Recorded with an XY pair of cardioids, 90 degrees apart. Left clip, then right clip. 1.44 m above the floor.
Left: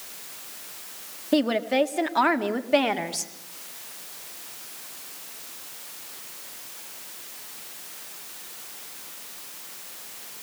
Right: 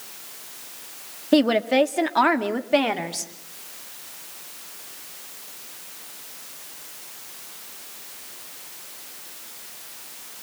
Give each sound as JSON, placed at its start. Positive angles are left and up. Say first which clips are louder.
{"t": 1.3, "sound": "a woman speaking", "louder": "right 4 dB", "azimuth_deg": -35, "distance_m": 2.0}